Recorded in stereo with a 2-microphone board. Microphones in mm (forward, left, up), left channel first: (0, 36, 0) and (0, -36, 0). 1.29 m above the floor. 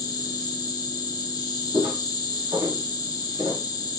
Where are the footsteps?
45° right (ahead or behind), 2.5 m; by 3.6 s 40° right (ahead or behind), 5 m.